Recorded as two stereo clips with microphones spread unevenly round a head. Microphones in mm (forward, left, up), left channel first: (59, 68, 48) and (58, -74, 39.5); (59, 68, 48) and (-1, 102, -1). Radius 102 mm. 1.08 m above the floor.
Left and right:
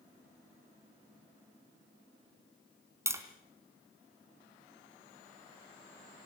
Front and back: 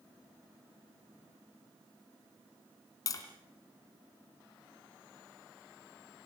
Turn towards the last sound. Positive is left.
turn(degrees=-20)